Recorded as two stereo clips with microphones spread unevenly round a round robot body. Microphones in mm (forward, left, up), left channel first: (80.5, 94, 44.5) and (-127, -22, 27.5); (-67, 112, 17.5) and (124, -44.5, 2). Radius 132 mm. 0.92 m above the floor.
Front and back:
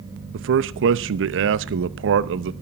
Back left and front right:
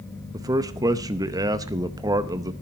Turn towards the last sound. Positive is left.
turn(degrees=-115)